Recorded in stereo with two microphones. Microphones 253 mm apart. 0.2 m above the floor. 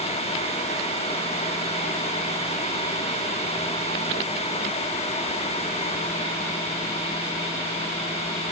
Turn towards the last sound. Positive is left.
No sound to turn to.